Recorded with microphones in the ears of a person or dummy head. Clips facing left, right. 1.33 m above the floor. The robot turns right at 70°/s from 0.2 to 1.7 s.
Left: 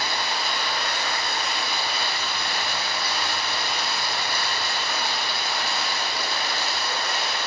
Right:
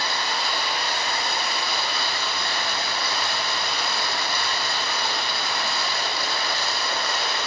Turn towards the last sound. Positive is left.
turn(degrees=-100)